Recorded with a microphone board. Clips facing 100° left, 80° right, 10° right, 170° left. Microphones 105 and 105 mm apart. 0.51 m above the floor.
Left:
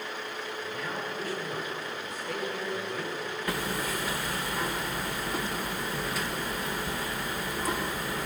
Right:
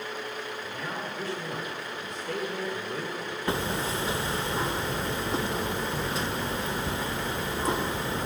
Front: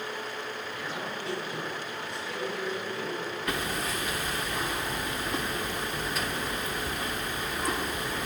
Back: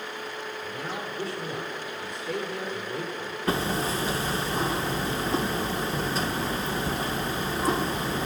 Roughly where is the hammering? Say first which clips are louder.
Right 4 dB, back 8 dB; behind right.